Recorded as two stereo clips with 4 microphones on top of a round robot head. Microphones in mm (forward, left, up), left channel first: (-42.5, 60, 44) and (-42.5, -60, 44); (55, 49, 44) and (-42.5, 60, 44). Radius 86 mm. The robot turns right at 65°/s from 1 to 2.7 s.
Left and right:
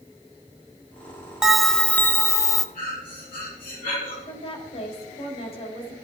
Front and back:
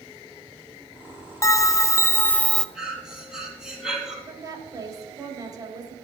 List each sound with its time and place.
1.4 s a bell: 10° right, 0.7 m; by 2.6 s 70° left, 0.7 m
2.8 s breathing: 90° left, 4 m
4.3 s a woman speaking: 125° left, 4 m